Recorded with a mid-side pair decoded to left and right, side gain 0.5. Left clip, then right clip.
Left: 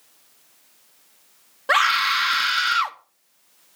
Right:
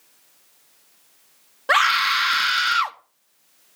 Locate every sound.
1.7 s a scream: 15° right, 1.6 m